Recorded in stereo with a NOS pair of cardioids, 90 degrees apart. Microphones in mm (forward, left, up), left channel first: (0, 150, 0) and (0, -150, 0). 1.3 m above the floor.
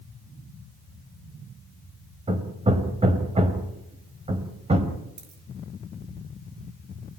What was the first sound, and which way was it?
Hammering, 20° right.